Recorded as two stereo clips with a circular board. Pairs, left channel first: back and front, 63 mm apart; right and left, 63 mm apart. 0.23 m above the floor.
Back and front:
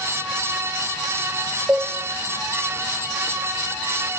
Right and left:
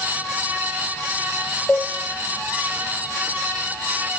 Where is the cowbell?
40° right, 1.0 m.